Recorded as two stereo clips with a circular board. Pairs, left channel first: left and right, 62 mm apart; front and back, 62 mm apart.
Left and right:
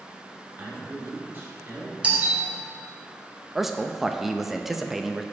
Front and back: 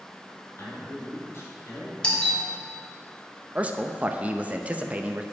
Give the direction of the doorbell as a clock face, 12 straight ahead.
2 o'clock.